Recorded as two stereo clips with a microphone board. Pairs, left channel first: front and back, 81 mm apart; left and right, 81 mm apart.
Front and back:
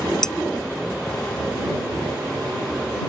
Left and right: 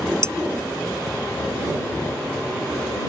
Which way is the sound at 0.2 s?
75° right.